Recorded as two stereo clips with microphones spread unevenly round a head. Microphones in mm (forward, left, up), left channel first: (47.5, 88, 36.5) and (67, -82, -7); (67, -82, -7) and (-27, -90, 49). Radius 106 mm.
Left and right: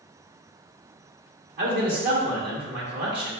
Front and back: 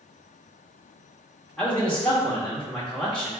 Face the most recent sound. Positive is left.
turn(degrees=-70)